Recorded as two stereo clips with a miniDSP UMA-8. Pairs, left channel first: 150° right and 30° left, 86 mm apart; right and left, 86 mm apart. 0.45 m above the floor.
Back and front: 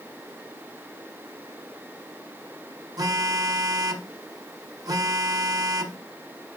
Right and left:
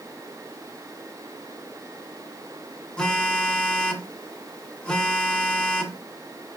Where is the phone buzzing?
10° right, 0.7 m.